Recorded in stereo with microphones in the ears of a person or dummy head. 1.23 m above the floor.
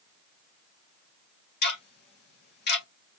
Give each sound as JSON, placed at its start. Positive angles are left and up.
{"t": 1.6, "sound": "ticking", "side_deg": 50, "distance_m": 1.0}